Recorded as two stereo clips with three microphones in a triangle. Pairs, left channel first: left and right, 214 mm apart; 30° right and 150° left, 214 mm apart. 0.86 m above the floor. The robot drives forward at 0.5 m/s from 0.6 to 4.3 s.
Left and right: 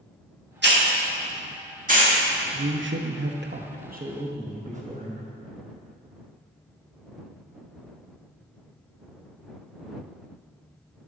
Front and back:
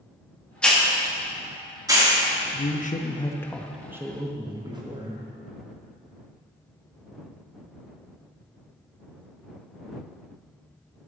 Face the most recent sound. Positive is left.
turn(degrees=-140)